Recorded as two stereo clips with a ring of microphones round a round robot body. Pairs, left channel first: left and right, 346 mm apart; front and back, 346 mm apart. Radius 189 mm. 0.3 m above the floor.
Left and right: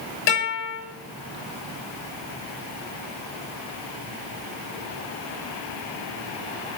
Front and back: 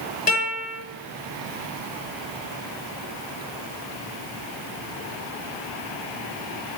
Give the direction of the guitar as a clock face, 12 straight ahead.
10 o'clock.